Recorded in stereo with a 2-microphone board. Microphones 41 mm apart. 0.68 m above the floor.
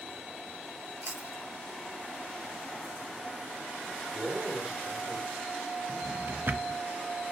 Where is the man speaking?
65° right (ahead or behind), 2.5 m.